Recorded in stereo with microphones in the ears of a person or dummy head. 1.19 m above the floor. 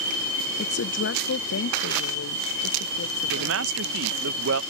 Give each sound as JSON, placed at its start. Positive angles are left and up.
{"t": 0.6, "sound": "a woman speaking", "side_deg": 55}
{"t": 3.3, "sound": "a man speaking", "side_deg": -65}